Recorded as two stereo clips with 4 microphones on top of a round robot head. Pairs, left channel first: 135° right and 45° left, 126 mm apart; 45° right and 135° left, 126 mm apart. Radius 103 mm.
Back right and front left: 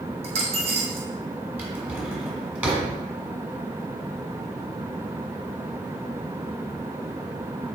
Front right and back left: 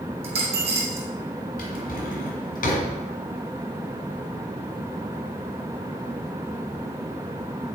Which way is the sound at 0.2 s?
90° left.